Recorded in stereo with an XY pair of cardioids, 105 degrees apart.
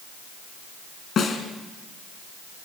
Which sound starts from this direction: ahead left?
A snare drum, at 1.2 s.